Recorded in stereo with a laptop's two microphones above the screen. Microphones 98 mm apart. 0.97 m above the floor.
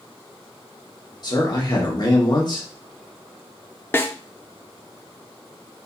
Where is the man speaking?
45° left (ahead or behind), 1.4 m.